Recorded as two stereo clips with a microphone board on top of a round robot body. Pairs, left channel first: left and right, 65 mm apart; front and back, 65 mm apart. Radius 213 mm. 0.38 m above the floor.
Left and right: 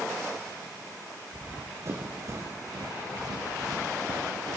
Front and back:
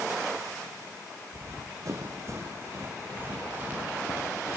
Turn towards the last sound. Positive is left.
turn(degrees=-105)